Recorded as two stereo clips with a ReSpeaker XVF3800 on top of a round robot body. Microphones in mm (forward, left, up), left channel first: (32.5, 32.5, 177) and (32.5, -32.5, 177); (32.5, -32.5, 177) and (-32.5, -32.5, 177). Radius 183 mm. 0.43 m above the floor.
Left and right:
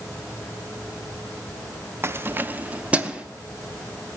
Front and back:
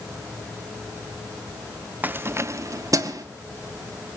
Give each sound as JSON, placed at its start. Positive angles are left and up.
{"t": 2.0, "sound": "keys jangling", "azimuth_deg": -125, "distance_m": 0.7}